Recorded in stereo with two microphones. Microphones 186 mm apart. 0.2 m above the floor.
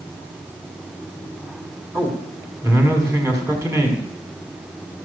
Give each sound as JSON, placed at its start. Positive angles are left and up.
{"t": 1.9, "sound": "a man speaking", "side_deg": -15, "distance_m": 1.9}